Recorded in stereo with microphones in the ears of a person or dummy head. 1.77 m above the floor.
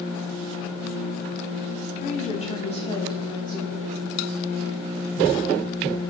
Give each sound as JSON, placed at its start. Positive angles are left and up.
{"t": 2.0, "sound": "a woman speaking", "side_deg": 45, "distance_m": 2.0}